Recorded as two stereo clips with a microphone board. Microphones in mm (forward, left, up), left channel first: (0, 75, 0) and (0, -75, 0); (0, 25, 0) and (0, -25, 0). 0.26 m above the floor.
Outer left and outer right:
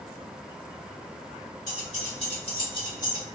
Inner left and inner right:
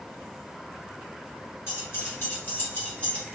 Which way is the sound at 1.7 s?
55° left (ahead or behind).